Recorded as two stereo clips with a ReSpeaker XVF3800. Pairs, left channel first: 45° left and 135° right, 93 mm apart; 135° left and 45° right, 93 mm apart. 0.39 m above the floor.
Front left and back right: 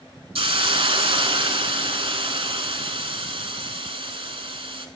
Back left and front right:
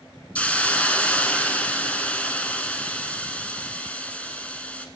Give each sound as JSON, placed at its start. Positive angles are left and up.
{"t": 0.3, "sound": "a hiss", "azimuth_deg": -150, "distance_m": 0.8}